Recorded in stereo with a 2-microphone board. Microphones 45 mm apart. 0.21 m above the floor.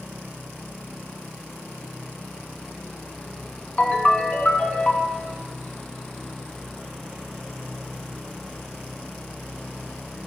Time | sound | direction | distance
3.8 | a ringtone | 30° left (ahead or behind) | 1.3 m